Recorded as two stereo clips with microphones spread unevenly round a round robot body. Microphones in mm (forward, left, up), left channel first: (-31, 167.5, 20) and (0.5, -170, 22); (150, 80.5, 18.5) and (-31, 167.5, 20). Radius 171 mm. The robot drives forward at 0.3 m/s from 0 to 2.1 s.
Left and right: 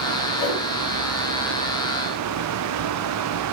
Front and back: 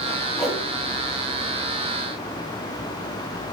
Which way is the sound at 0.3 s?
60° left.